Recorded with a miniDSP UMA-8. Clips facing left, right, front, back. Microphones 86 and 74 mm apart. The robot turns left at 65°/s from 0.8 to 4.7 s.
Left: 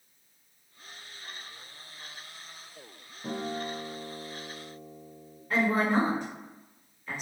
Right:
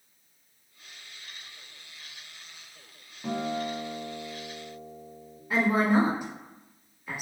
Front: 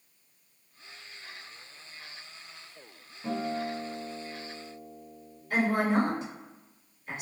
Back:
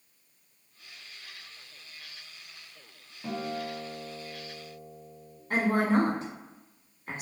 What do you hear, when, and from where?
3.2 s a guitar: 110° right, 0.9 m; by 5.4 s 155° left, 0.9 m
5.5 s a woman speaking: 165° right, 1.4 m